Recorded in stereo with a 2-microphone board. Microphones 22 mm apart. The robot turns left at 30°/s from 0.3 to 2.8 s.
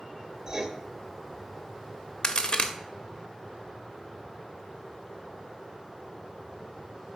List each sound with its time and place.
0.5 s writing: 25° right (ahead or behind), 0.7 m; by 0.7 s 20° right (ahead or behind), 0.7 m
2.2 s a crack: 35° left (ahead or behind), 0.6 m; by 2.7 s 45° left (ahead or behind), 0.6 m